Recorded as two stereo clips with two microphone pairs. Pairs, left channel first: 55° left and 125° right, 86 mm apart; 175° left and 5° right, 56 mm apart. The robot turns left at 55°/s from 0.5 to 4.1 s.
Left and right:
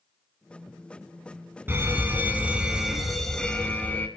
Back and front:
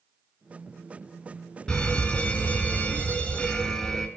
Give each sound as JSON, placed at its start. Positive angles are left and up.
{"t": 1.7, "sound": "a fire alarm", "azimuth_deg": -135, "distance_m": 2.5}